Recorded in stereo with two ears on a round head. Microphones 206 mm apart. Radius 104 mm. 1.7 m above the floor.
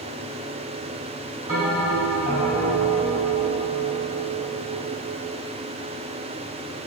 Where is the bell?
15° right (ahead or behind), 2.5 m.